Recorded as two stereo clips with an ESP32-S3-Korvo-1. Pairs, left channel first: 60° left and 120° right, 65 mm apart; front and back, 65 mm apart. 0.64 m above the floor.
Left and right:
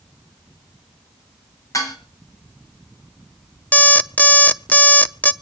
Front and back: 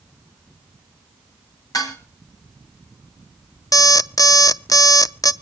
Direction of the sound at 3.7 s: Straight ahead.